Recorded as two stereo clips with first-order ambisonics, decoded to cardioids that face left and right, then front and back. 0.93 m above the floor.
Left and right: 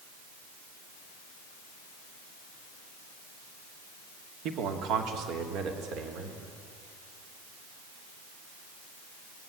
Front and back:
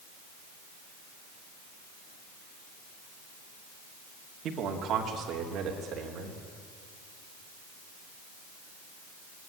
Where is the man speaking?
130° right, 2.5 m; by 6.4 s 125° right, 4 m.